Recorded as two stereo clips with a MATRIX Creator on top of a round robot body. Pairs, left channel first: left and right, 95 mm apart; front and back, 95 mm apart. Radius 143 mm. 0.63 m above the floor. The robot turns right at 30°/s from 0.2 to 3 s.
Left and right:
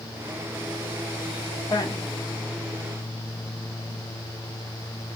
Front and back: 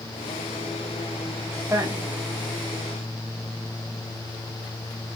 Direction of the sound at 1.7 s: 130° left.